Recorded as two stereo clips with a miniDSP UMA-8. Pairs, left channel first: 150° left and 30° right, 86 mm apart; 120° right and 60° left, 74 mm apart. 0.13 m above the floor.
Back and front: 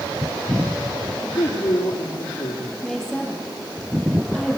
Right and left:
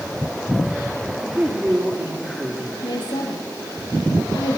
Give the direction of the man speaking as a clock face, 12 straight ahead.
7 o'clock.